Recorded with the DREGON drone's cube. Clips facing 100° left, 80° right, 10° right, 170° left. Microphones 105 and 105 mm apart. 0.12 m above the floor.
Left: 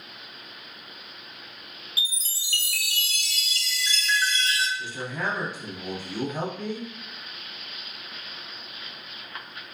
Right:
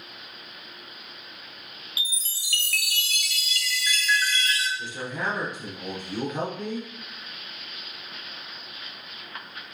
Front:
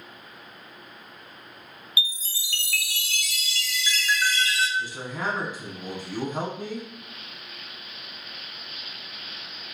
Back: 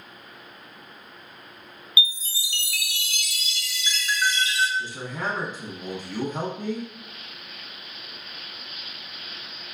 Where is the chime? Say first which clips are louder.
Left 2 dB, back 4 dB; 120° left, 0.6 m.